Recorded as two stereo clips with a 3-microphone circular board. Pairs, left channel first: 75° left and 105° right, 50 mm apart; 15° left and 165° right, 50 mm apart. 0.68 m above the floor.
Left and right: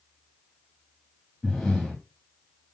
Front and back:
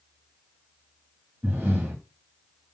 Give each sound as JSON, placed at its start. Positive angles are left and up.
{"t": 1.4, "sound": "breathing", "azimuth_deg": 155, "distance_m": 1.1}